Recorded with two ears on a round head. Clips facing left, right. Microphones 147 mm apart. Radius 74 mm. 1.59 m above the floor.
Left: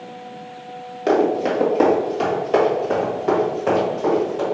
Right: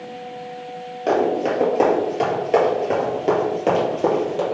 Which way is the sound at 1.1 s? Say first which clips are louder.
Left 1 dB; 10° left (ahead or behind).